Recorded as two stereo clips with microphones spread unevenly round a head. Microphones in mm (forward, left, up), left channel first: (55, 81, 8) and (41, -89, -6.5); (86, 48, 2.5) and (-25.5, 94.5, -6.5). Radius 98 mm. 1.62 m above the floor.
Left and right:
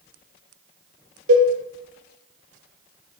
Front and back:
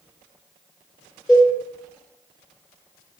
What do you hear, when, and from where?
1.3 s a cowbell: 115° right, 1.1 m